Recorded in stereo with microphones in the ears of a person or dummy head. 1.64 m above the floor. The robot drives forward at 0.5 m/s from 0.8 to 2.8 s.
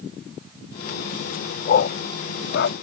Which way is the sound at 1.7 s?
45° left (ahead or behind).